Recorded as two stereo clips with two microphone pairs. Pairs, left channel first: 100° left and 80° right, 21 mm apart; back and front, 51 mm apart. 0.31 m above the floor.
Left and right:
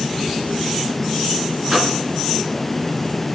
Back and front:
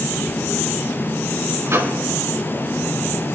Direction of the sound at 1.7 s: 25° right.